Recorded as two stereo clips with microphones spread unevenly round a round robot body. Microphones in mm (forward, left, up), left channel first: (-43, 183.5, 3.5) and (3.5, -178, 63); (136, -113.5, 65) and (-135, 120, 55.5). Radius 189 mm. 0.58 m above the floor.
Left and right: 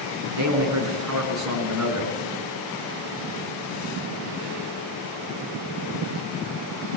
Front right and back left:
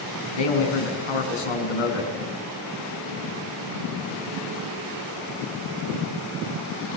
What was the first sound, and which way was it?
A man speaking, 35° right.